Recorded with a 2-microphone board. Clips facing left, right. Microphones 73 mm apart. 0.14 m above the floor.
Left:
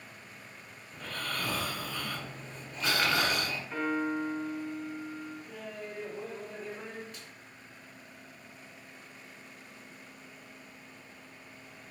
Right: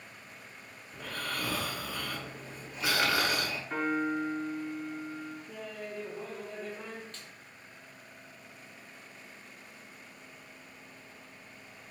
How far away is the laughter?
About 1.1 m.